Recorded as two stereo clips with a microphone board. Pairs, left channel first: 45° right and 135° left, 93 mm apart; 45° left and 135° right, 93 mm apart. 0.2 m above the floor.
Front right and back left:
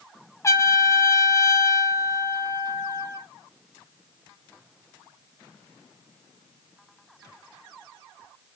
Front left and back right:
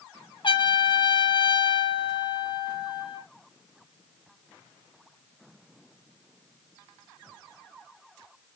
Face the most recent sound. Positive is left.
turn(degrees=15)